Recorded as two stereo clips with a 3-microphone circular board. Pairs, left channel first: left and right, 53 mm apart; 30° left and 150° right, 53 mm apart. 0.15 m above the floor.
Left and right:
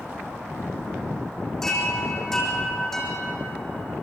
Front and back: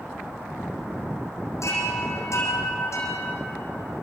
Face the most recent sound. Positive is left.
turn(degrees=5)